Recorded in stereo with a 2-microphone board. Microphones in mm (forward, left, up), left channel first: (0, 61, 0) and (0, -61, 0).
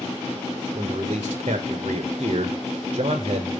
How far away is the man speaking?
About 0.7 m.